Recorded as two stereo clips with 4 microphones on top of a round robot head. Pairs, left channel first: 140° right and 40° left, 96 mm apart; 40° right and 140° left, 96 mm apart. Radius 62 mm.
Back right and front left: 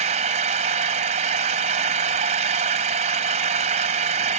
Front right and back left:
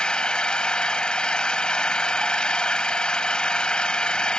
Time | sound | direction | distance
0.0 | an engine running | 40° left | ?